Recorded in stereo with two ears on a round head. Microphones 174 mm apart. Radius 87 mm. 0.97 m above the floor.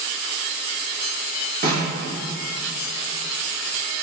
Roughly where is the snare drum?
Right.